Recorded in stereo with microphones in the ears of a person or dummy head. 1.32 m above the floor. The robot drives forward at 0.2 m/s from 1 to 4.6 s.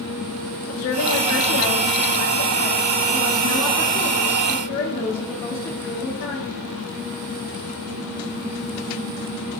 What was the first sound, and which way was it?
A woman speaking, 90° left.